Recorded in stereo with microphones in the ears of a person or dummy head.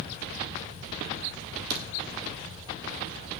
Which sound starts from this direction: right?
A crack, at 1.7 s.